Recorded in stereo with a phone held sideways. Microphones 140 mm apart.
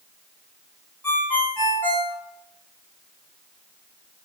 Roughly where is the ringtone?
Centre.